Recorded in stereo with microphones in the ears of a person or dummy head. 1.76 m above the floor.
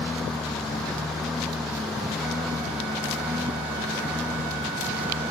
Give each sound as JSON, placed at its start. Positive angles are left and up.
{"t": 0.0, "sound": "a lawn mower", "side_deg": 5}